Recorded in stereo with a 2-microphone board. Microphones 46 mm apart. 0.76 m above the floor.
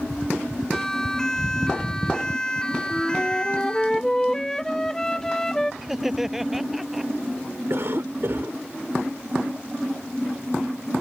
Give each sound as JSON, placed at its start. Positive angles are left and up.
{"t": 0.7, "sound": "a siren", "side_deg": 10}
{"t": 2.9, "sound": "a flute", "side_deg": 10}
{"t": 5.8, "sound": "laughter", "side_deg": -5}
{"t": 7.7, "sound": "a cough", "side_deg": -60}